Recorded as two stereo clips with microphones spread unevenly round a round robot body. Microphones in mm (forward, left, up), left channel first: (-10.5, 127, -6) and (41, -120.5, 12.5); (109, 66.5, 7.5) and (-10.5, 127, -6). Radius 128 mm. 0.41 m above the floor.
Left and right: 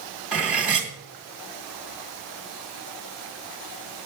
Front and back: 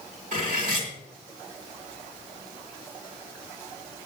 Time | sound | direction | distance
0.3 | cutlery clinking | 165° right | 1.8 m